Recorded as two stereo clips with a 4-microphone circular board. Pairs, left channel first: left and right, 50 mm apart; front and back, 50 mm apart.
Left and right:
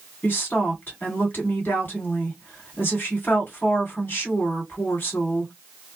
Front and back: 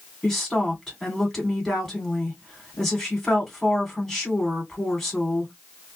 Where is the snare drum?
I don't hear a snare drum.